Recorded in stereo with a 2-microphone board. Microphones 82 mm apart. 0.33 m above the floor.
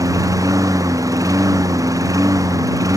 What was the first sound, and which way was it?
A lawn mower, 45° right (ahead or behind).